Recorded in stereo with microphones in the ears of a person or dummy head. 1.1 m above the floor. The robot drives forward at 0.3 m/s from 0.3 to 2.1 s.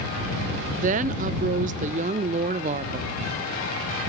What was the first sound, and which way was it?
A woman speaking, 40° right (ahead or behind).